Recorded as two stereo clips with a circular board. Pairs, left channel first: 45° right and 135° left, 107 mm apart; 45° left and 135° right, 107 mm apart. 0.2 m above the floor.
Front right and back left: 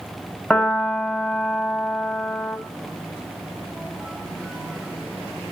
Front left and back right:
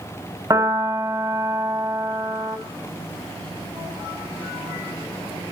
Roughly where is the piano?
Behind right.